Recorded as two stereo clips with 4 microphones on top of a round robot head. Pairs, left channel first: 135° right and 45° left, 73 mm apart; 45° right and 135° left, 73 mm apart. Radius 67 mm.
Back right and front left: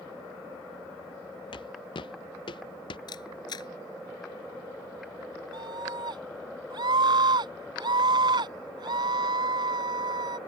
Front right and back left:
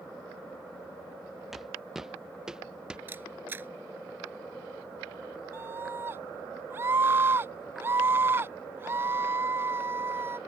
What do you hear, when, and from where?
1.5 s footsteps: 140° right; by 3.0 s 145° right
3.1 s a camera shutter: 160° right
5.5 s a scream: 70° left